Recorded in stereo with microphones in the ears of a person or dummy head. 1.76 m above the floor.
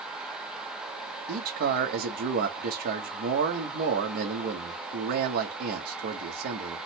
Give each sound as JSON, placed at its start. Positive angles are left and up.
{"t": 1.3, "sound": "a man speaking", "side_deg": -50, "distance_m": 0.9}